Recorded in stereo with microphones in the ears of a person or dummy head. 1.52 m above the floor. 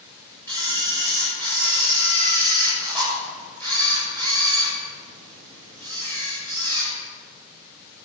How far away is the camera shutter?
About 7 m.